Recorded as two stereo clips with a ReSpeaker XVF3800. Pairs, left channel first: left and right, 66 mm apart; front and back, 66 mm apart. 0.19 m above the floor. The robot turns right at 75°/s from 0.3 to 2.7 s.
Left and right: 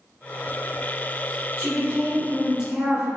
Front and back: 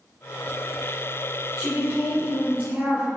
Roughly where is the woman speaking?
Behind left.